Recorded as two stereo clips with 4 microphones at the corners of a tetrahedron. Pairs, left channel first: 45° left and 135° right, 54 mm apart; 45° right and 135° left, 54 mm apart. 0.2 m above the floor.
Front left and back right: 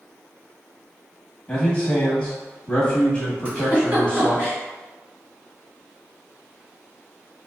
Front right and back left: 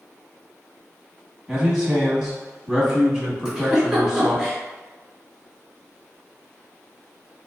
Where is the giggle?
155° right, 1.5 m.